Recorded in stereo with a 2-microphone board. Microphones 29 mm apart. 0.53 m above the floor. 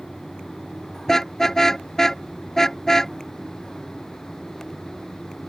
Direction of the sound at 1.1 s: 15° left (ahead or behind).